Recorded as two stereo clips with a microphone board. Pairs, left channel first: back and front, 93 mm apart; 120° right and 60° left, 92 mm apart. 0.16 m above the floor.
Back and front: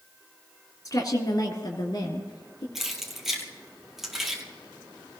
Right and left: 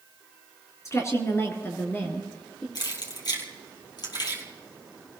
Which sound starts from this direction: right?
Keys jangling, at 2.8 s.